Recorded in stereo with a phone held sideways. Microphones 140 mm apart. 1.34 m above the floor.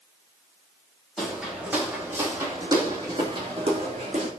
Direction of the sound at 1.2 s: Centre (ahead or behind).